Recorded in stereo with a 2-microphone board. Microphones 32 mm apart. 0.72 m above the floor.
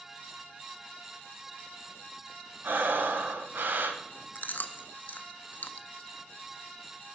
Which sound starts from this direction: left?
Chewing, at 4.3 s.